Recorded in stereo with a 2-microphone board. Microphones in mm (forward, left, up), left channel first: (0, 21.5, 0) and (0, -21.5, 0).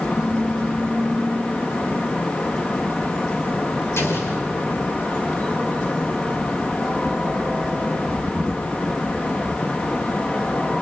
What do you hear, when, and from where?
4.0 s an explosion: 80° left, 3.5 m